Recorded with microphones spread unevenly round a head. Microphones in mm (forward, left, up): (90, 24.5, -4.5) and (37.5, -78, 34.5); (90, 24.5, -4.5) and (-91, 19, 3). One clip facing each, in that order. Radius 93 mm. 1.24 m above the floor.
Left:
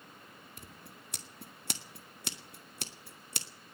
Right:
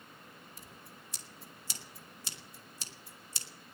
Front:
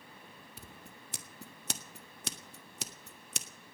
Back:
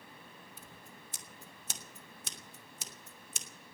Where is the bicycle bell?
I don't hear a bicycle bell.